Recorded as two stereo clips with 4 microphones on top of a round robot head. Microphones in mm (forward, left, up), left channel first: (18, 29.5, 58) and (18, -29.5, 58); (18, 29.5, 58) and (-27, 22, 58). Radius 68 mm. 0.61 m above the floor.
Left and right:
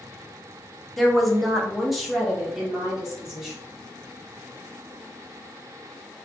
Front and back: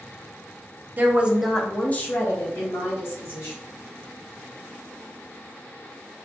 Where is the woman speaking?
175° left, 0.7 m; by 3.6 s straight ahead, 1.8 m.